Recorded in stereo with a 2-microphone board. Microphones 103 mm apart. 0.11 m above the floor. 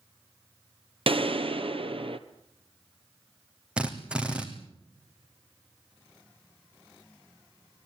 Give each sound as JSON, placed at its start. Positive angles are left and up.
{"t": 1.1, "sound": "a gunshot", "side_deg": -65, "distance_m": 1.2}
{"t": 3.8, "sound": "a drill", "side_deg": -10, "distance_m": 3.0}